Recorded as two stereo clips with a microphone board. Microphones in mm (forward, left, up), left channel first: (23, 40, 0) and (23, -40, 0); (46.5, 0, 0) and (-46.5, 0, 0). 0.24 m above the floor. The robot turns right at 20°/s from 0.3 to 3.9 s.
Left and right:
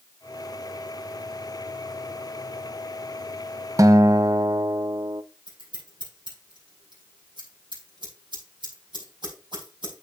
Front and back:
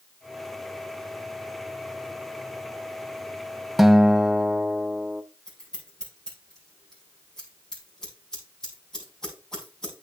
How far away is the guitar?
About 0.5 m.